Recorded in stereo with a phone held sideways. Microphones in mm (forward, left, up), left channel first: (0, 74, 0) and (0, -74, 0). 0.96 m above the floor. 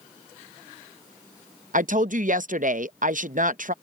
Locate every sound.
1.7 s a woman speaking: 65° right (ahead or behind)